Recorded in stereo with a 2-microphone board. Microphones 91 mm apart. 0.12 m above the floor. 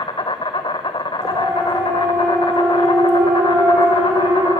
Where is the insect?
65° left (ahead or behind), 1.0 m.